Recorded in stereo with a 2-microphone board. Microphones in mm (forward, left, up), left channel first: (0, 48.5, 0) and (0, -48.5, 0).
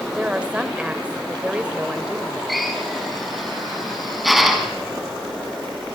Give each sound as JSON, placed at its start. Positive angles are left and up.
{"t": 0.1, "sound": "a woman speaking", "side_deg": -10, "distance_m": 2.5}
{"t": 2.5, "sound": "a drill", "side_deg": 0, "distance_m": 4.5}